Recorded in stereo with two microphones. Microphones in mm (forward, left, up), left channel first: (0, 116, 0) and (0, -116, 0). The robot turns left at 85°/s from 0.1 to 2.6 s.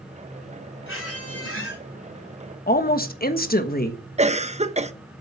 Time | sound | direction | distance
0.9 | a squeak | 125° left | 3 m
2.7 | a woman speaking | 40° left (ahead or behind) | 1.3 m
4.2 | a cough | 30° right (ahead or behind) | 0.8 m